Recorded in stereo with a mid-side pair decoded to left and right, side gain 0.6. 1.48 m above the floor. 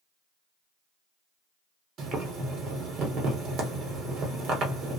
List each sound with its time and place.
2.0 s boiling: 50° right, 1.3 m